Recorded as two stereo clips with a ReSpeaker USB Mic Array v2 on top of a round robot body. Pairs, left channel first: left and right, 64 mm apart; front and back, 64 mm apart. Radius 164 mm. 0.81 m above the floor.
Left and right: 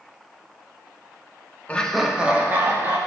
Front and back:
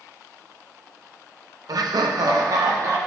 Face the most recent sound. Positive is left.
turn(degrees=-140)